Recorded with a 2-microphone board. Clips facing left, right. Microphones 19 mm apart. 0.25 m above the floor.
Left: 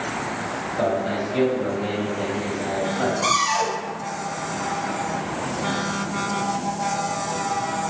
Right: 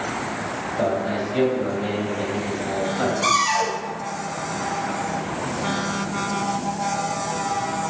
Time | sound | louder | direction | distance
0.8 | a man speaking | even | 25° left (ahead or behind) | 1.1 m
3.2 | a cupboard door | right 2 dB | 35° right (ahead or behind) | 1.2 m